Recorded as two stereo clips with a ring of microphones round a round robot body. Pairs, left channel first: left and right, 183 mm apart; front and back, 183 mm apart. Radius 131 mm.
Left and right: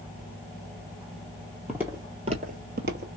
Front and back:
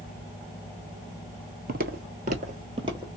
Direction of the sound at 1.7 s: 175° right.